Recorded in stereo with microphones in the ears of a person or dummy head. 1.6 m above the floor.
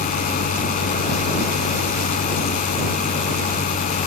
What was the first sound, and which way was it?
A fan, 45° left (ahead or behind).